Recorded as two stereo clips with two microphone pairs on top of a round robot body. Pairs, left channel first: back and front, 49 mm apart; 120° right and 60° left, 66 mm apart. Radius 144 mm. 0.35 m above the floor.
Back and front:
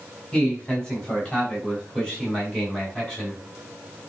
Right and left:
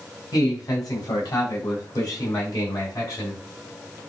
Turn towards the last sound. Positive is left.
turn(degrees=-85)